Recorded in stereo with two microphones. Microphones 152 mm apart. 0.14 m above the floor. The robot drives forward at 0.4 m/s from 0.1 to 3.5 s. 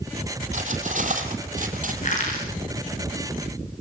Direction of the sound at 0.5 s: 50° right (ahead or behind).